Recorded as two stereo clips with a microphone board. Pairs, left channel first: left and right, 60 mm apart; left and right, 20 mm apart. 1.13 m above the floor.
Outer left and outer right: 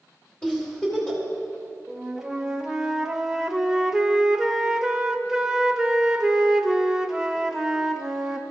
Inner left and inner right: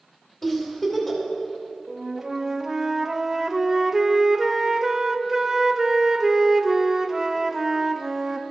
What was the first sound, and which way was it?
A giggle, 20° left (ahead or behind).